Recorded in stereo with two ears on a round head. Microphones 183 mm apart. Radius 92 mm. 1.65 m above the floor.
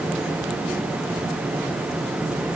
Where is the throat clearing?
No throat clearing in this recording.